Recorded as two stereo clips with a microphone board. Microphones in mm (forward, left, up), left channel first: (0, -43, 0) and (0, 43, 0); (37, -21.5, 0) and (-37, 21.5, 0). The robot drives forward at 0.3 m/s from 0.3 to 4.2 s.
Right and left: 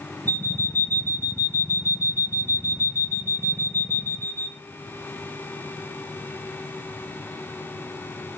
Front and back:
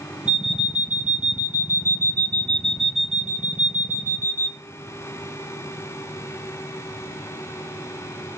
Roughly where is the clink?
I don't hear a clink.